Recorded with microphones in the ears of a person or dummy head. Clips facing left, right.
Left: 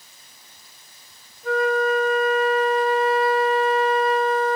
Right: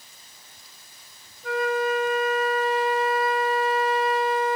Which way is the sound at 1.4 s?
35° left (ahead or behind).